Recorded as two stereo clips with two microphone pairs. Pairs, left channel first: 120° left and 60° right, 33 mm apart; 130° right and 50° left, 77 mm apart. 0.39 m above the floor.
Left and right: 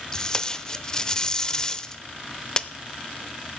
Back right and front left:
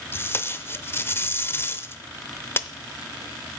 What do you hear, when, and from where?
0.1 s tape being pulled: straight behind, 0.6 m